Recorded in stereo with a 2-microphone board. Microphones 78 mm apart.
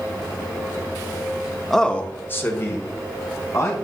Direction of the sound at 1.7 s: 5° left (ahead or behind).